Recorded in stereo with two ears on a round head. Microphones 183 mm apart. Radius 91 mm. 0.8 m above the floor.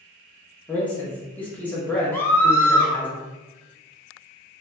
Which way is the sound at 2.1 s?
10° left (ahead or behind).